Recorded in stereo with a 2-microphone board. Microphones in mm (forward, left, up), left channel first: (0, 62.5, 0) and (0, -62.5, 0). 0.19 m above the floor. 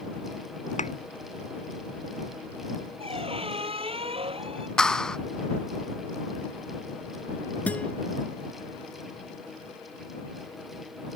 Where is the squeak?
50° right (ahead or behind).